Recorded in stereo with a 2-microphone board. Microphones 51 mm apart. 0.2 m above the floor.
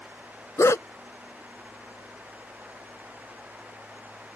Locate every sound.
0.6 s a dog barking: 70° left (ahead or behind)